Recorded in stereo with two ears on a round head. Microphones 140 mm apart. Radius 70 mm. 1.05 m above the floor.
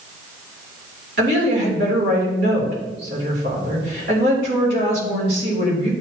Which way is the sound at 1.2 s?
80° right.